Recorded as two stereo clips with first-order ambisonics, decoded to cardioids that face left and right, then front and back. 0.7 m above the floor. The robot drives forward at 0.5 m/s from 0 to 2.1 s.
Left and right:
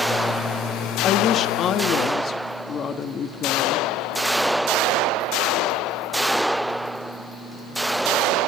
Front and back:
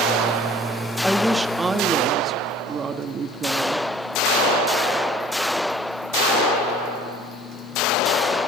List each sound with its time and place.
1.0 s a woman speaking: 90° left, 1.0 m; by 3.9 s 130° left, 1.1 m